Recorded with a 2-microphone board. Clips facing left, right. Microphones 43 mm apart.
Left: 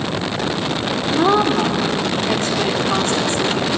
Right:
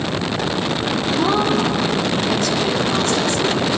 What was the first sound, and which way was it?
A woman speaking, 40° left (ahead or behind).